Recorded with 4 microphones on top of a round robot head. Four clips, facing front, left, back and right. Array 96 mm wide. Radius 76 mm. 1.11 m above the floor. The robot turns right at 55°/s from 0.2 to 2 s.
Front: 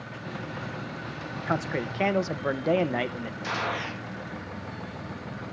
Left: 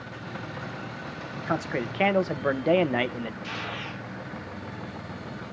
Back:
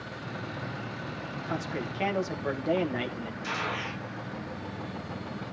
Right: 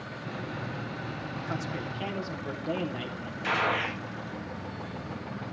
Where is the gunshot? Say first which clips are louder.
Right 7 dB, front 3 dB; 65° right, 1.6 m.